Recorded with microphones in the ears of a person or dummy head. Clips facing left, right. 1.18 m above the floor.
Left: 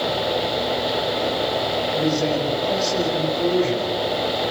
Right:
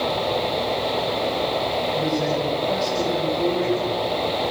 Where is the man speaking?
5° left (ahead or behind), 7 m.